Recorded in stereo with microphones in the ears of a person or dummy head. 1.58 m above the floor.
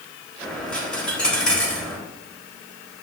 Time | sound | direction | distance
0.4 | a dropped coin | 5° left (ahead or behind) | 3.5 m